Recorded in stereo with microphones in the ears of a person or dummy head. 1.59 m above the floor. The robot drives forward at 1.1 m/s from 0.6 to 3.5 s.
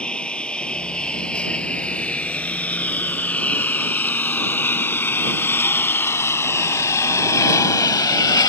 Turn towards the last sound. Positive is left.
turn(degrees=20)  # may be behind; listen again after turning